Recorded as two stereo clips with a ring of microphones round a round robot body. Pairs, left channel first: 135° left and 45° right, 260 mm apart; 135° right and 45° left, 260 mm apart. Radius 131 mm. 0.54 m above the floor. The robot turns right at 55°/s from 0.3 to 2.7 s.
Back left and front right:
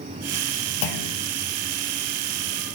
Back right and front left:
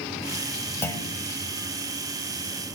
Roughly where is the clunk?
Behind left.